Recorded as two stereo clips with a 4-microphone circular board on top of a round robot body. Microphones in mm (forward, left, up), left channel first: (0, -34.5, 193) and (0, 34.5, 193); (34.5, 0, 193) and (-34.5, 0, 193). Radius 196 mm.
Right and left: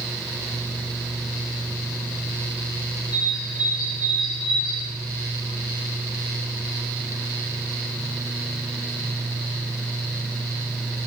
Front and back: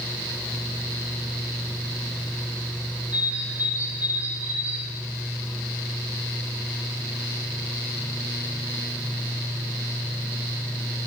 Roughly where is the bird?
Behind right.